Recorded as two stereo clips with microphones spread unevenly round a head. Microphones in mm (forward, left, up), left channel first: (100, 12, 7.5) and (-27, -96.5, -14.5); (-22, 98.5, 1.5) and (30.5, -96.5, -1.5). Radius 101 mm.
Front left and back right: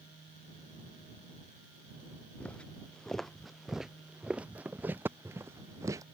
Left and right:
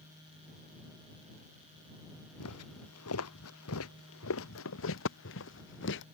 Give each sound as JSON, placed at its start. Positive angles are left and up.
{"t": 2.4, "sound": "footsteps", "azimuth_deg": 125}